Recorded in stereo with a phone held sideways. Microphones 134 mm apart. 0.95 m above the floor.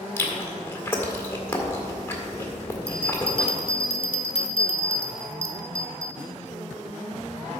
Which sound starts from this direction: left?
A bell, at 2.9 s.